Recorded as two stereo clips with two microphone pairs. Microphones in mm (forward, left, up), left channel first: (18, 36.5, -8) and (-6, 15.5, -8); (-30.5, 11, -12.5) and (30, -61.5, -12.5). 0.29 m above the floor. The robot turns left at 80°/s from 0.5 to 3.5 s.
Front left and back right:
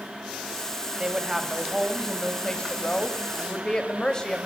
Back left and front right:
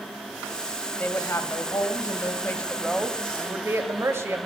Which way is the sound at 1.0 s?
170° right.